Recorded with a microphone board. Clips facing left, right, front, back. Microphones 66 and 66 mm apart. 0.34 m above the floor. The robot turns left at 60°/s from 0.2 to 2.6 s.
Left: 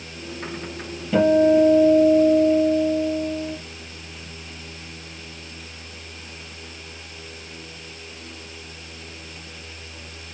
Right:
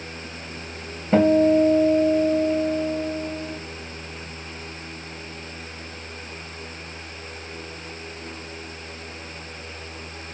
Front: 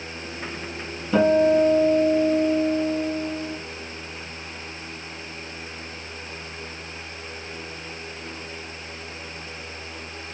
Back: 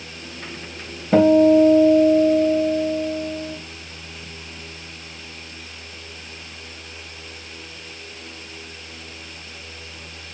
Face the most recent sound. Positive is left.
turn(degrees=125)